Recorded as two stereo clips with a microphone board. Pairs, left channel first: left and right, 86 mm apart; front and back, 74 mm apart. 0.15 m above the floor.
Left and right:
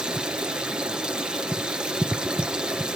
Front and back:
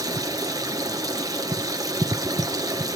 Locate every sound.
0.0 s running water: 165° right, 1.9 m